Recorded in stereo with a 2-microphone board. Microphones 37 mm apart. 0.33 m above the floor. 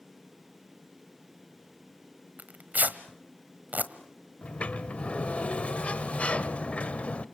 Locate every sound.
2.4 s tearing paper: 50° right (ahead or behind), 1.4 m
4.4 s a sliding door: 35° left (ahead or behind), 0.9 m